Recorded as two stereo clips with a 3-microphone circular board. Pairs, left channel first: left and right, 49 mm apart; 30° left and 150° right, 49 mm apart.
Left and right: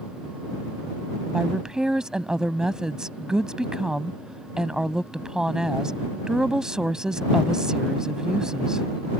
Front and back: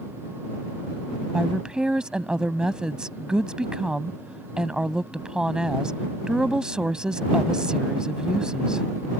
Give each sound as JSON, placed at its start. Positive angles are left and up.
{"t": 1.3, "sound": "a woman speaking", "azimuth_deg": -130}